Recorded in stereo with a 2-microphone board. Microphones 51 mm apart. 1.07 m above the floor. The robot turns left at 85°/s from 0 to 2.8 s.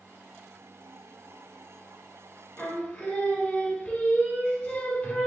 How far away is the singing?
About 0.9 m.